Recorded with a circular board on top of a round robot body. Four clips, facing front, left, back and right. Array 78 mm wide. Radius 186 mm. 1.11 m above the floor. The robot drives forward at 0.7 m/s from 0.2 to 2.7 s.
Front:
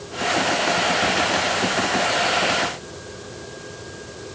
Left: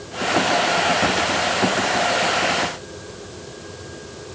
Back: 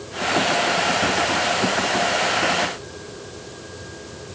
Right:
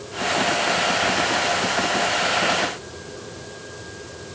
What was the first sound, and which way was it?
Only background noise.